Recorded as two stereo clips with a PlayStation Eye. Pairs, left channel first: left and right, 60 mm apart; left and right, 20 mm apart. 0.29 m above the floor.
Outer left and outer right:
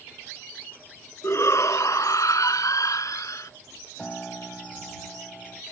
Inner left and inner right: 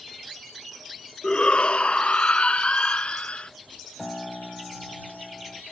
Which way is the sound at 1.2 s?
50° left (ahead or behind).